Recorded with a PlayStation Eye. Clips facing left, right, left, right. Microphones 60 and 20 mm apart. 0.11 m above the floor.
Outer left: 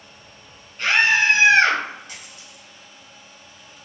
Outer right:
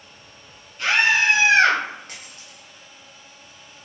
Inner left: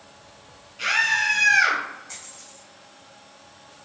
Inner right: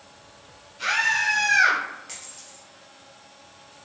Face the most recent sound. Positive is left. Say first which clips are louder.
# even, even
turn(degrees=-50)  # may be behind; listen again after turning